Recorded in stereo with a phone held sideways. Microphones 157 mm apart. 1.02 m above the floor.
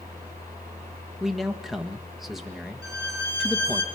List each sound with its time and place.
0.0 s a fan: 20° left (ahead or behind), 9 m
1.2 s a man speaking: centre (ahead or behind), 1.4 m
2.8 s a violin: 20° right (ahead or behind), 2 m